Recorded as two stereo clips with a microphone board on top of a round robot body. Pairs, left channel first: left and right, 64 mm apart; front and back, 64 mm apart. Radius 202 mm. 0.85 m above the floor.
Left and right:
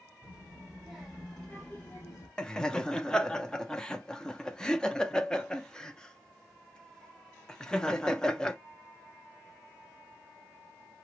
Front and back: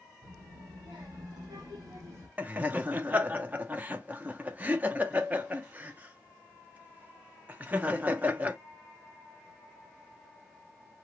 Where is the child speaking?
165° right, 1.8 m; by 2.3 s 130° left, 1.1 m.